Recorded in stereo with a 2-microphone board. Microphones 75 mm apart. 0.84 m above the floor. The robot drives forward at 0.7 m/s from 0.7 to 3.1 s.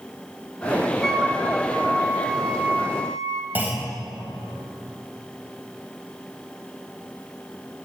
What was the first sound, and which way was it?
A flute, 5° left (ahead or behind).